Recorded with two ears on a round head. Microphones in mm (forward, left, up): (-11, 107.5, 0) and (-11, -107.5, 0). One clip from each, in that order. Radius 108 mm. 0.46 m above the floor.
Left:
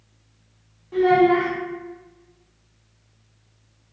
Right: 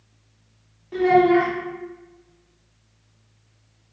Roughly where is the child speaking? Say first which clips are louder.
Even; centre.